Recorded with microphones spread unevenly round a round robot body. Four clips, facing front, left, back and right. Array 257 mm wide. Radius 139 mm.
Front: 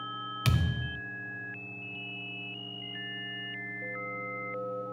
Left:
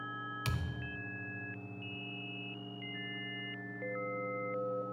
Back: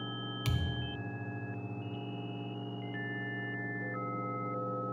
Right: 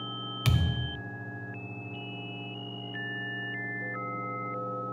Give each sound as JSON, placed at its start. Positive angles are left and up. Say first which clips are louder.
{"t": 0.5, "sound": "a thud", "louder": "right 9 dB, front 7 dB", "azimuth_deg": -40}